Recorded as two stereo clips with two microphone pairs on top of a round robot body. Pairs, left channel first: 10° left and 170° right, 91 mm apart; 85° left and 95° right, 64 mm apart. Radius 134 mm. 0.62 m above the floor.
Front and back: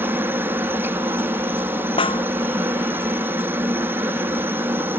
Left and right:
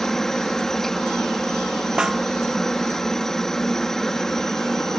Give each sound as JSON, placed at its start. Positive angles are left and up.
{"t": 0.0, "sound": "a helicopter", "azimuth_deg": 165}
{"t": 2.0, "sound": "a snare drum", "azimuth_deg": -20}